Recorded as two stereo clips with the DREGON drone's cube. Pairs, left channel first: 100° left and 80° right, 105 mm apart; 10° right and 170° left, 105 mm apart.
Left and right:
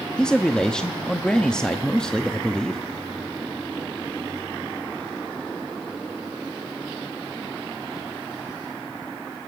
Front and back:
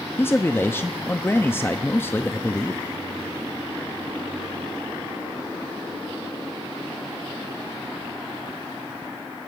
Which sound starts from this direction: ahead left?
A man speaking, at 0.2 s.